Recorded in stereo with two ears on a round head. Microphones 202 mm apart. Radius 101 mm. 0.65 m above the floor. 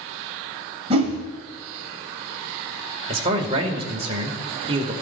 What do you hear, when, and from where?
0.9 s a whoosh: 30° right (ahead or behind), 2 m
3.1 s a man speaking: 30° right (ahead or behind), 1.9 m